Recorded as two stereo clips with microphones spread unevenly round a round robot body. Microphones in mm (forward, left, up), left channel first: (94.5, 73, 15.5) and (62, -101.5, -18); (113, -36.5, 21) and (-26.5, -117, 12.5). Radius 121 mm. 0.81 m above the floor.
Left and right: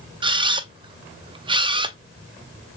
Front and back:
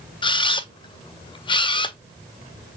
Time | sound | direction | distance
0.2 | a camera shutter | 35° right | 0.5 m